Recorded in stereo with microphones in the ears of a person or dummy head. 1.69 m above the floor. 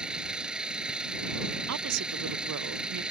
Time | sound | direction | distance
0.0 | an engine running | 5° right (ahead or behind) | ?
1.7 | a woman speaking | 75° right (ahead or behind) | ?